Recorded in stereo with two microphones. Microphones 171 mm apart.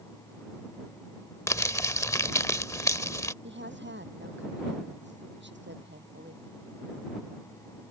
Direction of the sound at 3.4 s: 85° right.